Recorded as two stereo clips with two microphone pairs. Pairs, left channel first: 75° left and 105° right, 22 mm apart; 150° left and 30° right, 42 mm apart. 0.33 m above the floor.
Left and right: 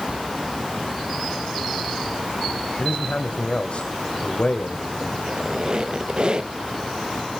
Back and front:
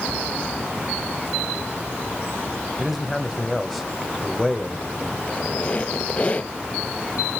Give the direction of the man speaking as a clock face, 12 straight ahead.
10 o'clock.